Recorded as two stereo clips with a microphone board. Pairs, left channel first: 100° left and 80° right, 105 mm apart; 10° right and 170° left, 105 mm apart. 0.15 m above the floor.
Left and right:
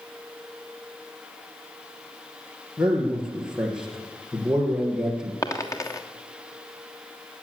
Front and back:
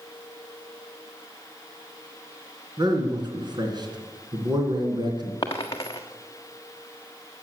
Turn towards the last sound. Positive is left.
turn(degrees=40)